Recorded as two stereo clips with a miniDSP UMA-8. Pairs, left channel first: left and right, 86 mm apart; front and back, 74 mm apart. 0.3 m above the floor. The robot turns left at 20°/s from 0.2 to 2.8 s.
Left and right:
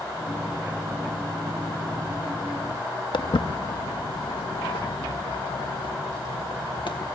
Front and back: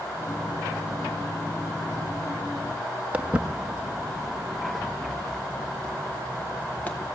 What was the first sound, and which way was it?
Footsteps, 110° left.